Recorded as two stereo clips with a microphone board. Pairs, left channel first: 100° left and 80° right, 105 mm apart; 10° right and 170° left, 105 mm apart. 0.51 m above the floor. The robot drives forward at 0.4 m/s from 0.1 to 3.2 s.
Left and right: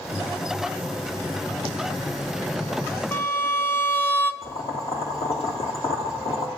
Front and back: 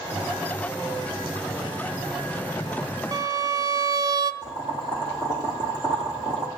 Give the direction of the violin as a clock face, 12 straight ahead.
7 o'clock.